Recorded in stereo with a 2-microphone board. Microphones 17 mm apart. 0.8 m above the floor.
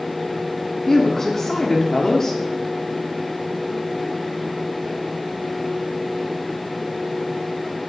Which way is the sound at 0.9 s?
35° left (ahead or behind).